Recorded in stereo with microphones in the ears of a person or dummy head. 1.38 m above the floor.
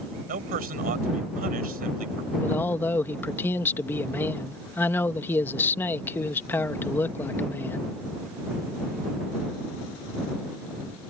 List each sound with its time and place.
0.3 s a man speaking: 45° right (ahead or behind)
2.4 s a man speaking: 10° left (ahead or behind)